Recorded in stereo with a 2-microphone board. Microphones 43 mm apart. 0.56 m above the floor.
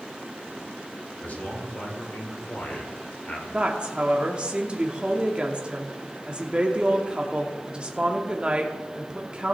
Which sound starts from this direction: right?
A woman speaking, at 3.5 s.